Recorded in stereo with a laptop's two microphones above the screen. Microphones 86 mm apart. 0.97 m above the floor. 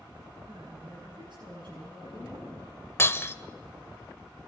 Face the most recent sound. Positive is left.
turn(degrees=30)  # may be behind; listen again after turning